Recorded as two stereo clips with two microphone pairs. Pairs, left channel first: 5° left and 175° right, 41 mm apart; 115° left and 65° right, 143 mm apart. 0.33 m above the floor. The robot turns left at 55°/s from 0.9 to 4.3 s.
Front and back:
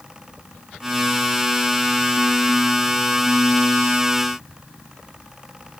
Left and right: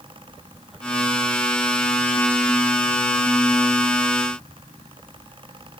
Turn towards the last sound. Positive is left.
No sound to turn to.